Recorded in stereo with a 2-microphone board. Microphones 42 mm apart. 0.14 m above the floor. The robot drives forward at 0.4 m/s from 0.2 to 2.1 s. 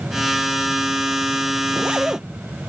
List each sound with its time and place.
1.7 s a zipper: 25° right (ahead or behind)